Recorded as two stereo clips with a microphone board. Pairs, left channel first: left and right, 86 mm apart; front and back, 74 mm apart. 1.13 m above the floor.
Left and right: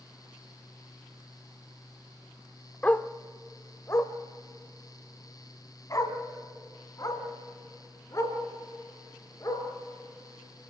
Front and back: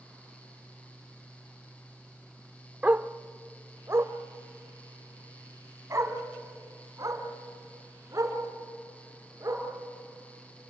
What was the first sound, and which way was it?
A dog barking, 140° left.